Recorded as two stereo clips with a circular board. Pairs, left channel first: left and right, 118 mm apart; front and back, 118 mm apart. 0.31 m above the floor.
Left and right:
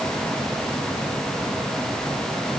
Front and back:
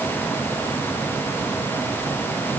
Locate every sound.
Only background noise.